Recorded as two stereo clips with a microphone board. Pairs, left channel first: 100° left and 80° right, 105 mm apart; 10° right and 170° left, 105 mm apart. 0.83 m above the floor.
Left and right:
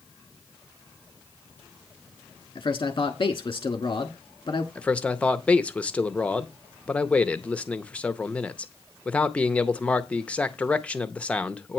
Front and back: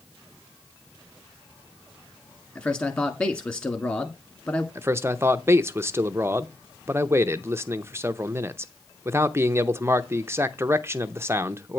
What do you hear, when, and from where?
2.5 s a man speaking: 55° left, 1.3 m
4.8 s a man speaking: 155° left, 0.6 m